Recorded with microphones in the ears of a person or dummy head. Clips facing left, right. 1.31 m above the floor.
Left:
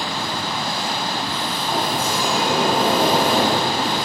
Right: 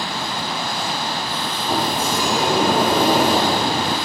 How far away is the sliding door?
About 6.5 m.